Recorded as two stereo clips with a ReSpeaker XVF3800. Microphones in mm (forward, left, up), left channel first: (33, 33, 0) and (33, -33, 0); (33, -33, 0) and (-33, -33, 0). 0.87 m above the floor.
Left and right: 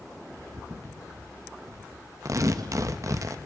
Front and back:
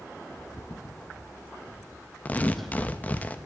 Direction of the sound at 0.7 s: 45° right.